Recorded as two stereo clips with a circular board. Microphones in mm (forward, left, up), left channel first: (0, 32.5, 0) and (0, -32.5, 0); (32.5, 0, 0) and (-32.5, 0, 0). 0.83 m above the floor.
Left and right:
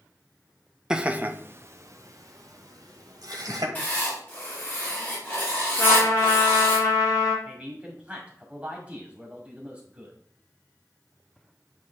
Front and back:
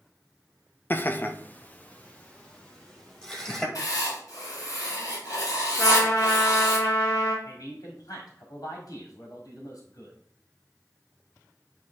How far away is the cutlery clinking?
I don't hear cutlery clinking.